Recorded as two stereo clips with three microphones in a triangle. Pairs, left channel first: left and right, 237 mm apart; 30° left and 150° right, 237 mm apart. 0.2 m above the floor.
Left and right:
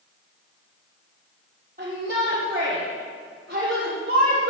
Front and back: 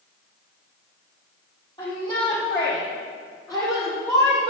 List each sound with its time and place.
1.8 s a shout: 40° right, 5 m; by 4.5 s 55° right, 4.5 m